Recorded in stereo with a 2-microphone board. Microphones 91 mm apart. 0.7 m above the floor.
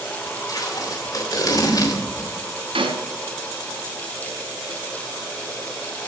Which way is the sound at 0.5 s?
45° left (ahead or behind).